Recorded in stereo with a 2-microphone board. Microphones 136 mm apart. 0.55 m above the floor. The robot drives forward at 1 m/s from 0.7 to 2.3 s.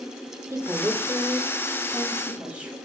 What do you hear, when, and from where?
0.5 s a woman speaking: 20° right (ahead or behind), 1.2 m; by 2.8 s 10° right (ahead or behind), 2.5 m